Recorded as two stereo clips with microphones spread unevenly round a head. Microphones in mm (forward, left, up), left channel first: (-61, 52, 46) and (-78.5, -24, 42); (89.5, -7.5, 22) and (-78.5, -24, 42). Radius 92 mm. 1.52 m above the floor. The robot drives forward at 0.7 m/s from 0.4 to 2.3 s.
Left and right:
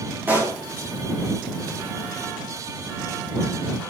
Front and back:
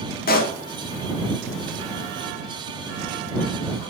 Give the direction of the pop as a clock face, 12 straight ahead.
1 o'clock.